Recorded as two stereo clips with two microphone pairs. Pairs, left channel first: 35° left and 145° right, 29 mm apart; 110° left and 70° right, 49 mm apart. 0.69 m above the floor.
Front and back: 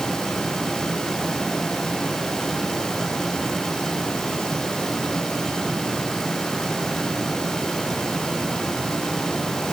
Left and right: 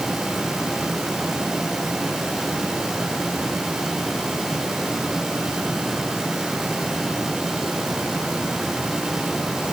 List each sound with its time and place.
Only background noise.